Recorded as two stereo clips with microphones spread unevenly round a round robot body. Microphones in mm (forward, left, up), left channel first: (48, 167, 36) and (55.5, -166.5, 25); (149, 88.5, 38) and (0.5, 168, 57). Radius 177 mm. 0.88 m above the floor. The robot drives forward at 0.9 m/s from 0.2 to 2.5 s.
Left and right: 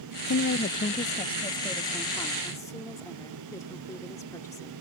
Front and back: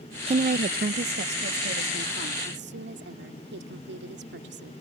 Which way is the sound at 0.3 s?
115° left.